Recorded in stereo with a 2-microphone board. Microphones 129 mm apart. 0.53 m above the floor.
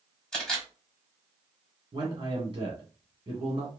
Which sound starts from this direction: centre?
A camera shutter, at 0.3 s.